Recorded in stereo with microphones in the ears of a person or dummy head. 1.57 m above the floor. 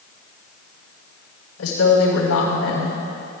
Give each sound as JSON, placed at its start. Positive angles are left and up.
{"t": 1.6, "sound": "a woman speaking", "side_deg": 85, "distance_m": 4.5}